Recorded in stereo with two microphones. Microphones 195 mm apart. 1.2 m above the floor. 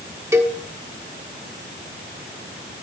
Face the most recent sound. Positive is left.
turn(degrees=-15)  # may be behind; listen again after turning